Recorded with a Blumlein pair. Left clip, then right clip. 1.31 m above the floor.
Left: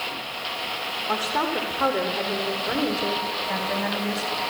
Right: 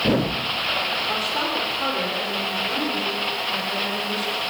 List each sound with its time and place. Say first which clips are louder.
1.1 s a woman speaking: right 1 dB; 15° left, 5 m; by 4.4 s 30° left, 8.5 m